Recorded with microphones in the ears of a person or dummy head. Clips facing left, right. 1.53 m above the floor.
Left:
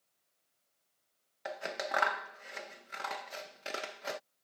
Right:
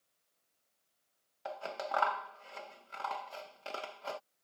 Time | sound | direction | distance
1.4 | scissors | 20° left (ahead or behind) | ?